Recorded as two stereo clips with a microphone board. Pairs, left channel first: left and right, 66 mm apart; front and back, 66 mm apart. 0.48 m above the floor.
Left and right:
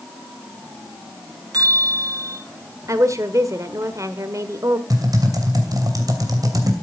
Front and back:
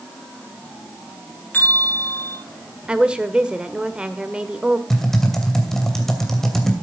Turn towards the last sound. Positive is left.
turn(degrees=-85)